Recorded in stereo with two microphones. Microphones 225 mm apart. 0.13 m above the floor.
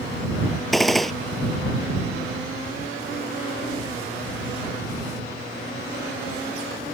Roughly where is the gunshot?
Centre.